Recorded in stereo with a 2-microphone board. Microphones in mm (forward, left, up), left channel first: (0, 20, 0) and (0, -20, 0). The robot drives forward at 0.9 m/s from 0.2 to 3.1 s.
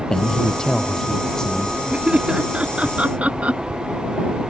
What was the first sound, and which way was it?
A man speaking, 15° left (ahead or behind).